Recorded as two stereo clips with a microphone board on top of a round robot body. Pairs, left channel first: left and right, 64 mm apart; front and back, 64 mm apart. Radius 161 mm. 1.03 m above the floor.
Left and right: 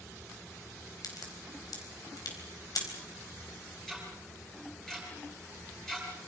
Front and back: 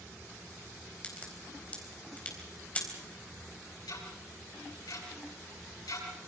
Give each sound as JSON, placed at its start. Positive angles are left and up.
{"t": 1.0, "sound": "a crack", "azimuth_deg": 70, "distance_m": 4.0}
{"t": 3.9, "sound": "ticking", "azimuth_deg": 5, "distance_m": 6.5}